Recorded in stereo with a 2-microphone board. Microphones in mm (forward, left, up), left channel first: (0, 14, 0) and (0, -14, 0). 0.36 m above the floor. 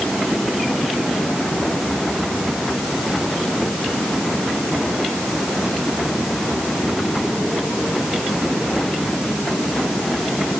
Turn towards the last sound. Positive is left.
No sound to turn to.